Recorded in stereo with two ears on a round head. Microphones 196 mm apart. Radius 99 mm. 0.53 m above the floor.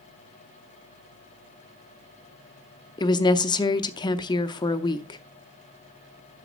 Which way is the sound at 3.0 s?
20° left (ahead or behind).